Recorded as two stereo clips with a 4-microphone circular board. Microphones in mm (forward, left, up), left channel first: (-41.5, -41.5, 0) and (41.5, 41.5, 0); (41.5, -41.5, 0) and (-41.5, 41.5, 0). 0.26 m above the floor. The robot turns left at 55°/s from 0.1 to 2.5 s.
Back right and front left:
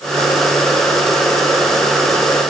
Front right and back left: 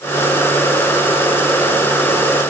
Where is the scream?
No scream in this recording.